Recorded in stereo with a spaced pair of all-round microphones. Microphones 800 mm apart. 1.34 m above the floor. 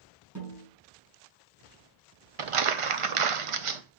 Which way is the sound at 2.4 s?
45° right (ahead or behind).